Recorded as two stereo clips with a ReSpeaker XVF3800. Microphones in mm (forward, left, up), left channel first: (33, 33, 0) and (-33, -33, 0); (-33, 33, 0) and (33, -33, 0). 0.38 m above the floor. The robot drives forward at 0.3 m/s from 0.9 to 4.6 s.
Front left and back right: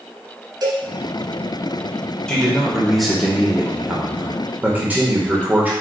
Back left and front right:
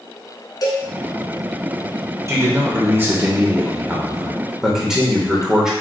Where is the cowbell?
Straight behind, 1.1 m.